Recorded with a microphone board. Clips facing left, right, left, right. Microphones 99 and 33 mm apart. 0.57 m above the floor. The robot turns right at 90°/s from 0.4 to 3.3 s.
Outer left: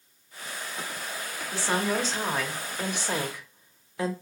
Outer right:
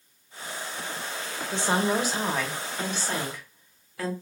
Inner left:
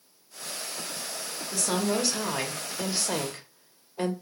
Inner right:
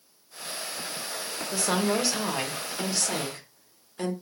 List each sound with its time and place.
1.5 s a woman speaking: 20° right (ahead or behind), 0.8 m; by 4.1 s 20° left (ahead or behind), 0.8 m